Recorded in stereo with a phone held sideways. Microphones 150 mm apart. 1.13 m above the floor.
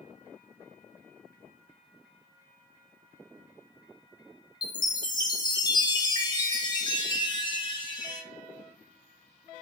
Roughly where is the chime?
Left.